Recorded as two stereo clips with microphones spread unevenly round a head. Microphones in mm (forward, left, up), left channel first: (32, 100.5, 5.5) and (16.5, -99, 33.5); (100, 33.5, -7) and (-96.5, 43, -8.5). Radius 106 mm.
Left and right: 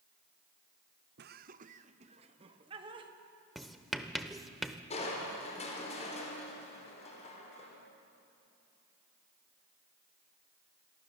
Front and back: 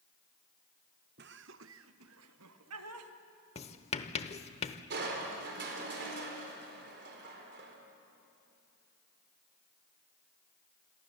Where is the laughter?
140° right, 0.7 m; by 3.1 s 165° right, 2 m.